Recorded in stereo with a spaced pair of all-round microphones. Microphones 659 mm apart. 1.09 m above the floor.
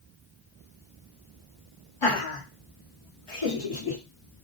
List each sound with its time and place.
2.0 s laughter: 45° left (ahead or behind), 1.1 m; by 4.0 s 30° left (ahead or behind), 0.9 m